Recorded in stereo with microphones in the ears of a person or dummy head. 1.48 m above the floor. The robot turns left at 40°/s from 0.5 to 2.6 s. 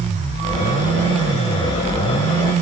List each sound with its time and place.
Only background noise.